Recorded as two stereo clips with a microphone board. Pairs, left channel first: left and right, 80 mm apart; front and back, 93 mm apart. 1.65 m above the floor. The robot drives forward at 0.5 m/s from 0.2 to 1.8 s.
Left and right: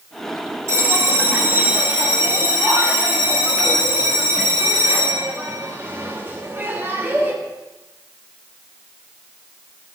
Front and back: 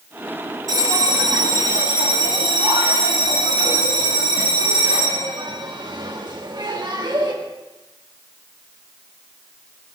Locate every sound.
0.7 s a bell: 140° right, 1.5 m; by 7.3 s 150° right, 1.9 m